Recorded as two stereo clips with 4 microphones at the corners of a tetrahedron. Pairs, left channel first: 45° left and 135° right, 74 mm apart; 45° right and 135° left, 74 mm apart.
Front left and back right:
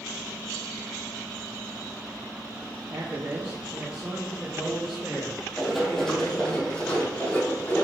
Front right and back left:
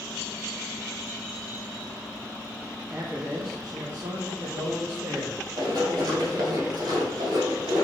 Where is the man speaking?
170° right, 1.0 m; by 6.6 s 135° left, 3 m.